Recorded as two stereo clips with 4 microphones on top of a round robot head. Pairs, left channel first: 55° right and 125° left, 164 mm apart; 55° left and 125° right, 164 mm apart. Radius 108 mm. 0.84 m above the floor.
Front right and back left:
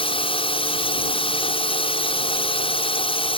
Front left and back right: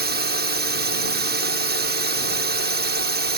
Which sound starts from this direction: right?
A drone, at 0.0 s.